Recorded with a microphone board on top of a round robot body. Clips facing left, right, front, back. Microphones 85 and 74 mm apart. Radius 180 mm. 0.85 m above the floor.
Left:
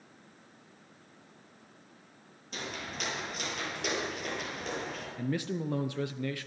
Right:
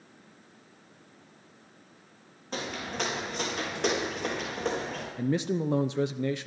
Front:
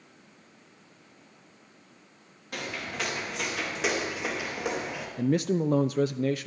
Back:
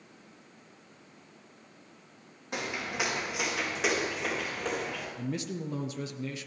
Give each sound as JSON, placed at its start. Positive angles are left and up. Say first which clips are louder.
{"t": 2.5, "sound": "footsteps", "louder": "right 6 dB, back 1 dB", "azimuth_deg": -110, "distance_m": 5.5}
{"t": 5.2, "sound": "a man speaking", "louder": "right 6 dB, front 13 dB", "azimuth_deg": -25, "distance_m": 0.6}